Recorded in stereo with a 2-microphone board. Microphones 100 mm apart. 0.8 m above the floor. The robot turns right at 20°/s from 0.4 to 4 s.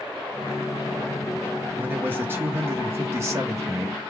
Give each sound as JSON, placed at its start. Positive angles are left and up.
{"t": 1.8, "sound": "a man speaking", "azimuth_deg": -140, "distance_m": 0.8}